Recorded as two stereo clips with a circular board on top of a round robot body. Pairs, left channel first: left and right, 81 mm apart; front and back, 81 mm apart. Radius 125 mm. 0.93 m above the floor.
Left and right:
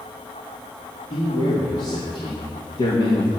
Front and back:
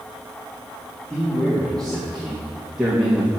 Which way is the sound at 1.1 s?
85° left.